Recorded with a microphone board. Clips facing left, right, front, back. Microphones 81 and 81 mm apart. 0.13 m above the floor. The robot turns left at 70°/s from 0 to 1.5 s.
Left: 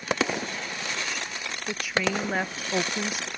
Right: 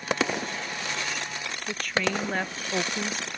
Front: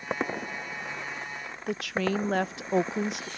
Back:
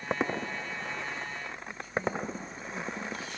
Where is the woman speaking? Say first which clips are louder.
Left 1 dB, front 5 dB; 5° left.